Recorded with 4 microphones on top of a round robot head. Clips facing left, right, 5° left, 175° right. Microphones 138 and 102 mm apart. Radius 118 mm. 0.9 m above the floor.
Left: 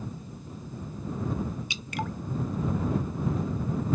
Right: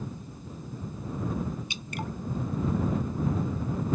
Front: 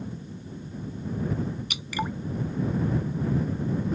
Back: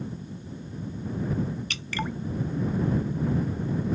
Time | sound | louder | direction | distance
1.7 | dripping | left 2 dB, front 1 dB | 80° left | ?